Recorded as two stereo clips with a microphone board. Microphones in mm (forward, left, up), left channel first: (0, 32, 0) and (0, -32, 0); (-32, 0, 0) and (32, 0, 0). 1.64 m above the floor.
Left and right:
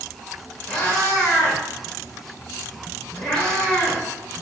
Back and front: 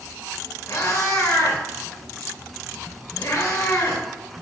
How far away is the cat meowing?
About 2 m.